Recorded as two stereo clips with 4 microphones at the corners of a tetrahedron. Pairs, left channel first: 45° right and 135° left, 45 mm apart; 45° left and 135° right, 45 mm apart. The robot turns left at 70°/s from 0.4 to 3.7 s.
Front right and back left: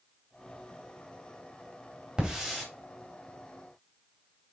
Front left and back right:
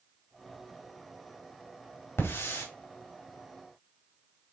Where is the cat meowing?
I don't hear a cat meowing.